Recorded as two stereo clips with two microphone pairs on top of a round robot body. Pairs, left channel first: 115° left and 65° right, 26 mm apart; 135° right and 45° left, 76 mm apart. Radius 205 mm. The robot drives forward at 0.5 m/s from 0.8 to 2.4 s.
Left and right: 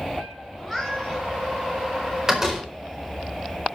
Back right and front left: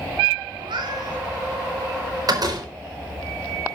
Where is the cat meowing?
25° left, 1.8 m; by 1.2 s 30° left, 1.6 m.